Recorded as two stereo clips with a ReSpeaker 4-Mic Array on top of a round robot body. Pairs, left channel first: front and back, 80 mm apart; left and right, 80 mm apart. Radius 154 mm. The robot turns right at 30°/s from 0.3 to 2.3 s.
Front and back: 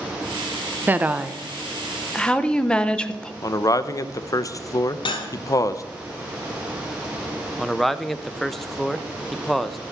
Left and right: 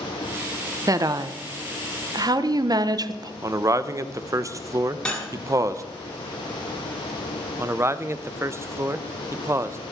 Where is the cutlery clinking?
10° left, 1.7 m.